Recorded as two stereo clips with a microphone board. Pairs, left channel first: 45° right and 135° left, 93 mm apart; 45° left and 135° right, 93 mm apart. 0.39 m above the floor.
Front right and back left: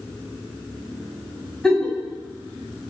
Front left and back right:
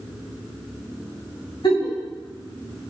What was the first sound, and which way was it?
A giggle, 35° left.